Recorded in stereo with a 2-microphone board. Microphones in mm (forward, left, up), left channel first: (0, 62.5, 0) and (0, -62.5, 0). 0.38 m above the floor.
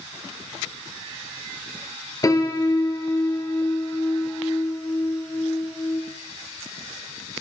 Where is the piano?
30° left (ahead or behind), 1.8 m.